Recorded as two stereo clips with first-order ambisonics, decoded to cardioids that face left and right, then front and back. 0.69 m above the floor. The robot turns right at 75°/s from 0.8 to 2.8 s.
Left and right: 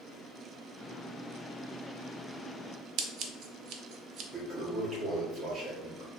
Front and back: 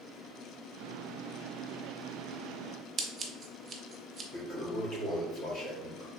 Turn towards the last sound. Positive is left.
turn(degrees=-30)